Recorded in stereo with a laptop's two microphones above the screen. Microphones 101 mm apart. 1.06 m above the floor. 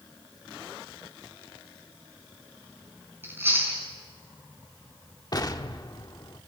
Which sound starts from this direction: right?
Chewing, at 3.2 s.